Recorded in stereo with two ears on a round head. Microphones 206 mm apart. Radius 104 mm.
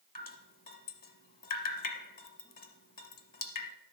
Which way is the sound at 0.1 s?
40° left (ahead or behind).